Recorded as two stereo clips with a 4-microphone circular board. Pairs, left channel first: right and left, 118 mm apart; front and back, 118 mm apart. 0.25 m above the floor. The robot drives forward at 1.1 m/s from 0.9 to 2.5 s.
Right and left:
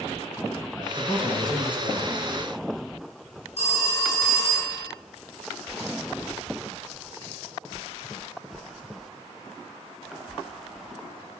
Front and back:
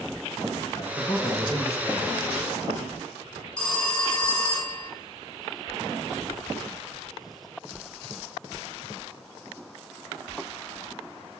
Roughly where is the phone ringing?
Right.